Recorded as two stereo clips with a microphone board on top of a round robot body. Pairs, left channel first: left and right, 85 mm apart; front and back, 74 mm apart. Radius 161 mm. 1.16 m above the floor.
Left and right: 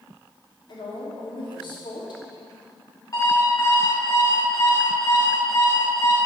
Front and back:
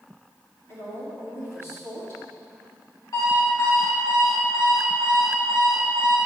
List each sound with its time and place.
0.7 s a woman speaking: 55° left, 3 m
3.1 s an alarm clock: 35° left, 3 m